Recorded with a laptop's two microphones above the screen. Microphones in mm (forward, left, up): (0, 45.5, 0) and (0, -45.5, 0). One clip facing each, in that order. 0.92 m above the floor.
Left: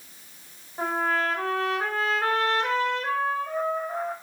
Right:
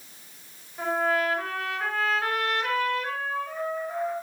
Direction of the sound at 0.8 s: 30° left (ahead or behind).